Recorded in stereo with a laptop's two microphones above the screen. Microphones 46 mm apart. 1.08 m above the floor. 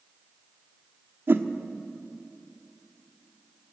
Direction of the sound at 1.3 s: 55° right (ahead or behind).